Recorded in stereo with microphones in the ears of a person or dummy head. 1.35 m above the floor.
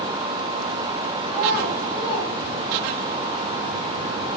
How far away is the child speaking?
About 1.0 m.